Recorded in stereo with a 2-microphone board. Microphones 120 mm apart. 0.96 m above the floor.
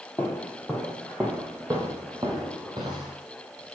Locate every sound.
0.2 s footsteps: 15° left (ahead or behind), 1.7 m; by 3.2 s 40° right (ahead or behind), 2.5 m